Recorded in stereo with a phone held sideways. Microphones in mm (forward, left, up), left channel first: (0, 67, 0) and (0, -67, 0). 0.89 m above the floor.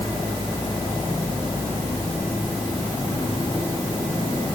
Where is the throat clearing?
No throat clearing in this recording.